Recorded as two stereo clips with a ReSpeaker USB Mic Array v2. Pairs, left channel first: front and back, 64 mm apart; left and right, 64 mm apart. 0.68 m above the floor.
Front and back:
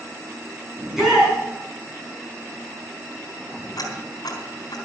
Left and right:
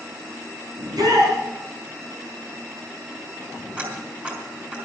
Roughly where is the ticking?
Ahead.